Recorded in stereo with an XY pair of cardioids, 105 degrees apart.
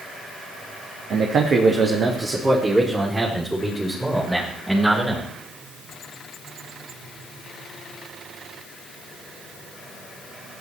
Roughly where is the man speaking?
Ahead right.